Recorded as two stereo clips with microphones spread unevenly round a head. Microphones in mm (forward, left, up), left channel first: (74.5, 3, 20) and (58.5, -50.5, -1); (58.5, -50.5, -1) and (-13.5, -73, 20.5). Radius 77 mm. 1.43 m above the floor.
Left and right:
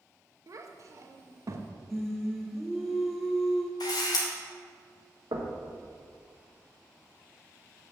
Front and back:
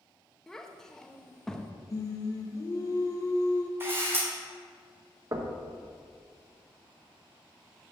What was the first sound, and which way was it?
A child speaking, 75° right.